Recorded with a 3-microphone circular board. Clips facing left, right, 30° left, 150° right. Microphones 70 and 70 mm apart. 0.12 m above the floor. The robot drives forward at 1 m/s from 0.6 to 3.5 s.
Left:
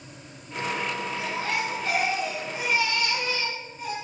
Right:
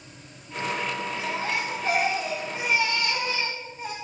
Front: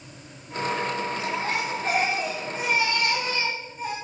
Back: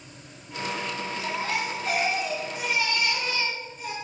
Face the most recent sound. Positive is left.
turn(degrees=-25)